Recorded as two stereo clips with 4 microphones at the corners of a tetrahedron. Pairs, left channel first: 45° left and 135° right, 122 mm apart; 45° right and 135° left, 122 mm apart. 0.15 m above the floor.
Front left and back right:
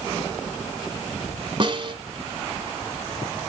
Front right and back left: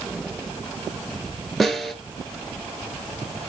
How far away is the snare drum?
About 1.4 m.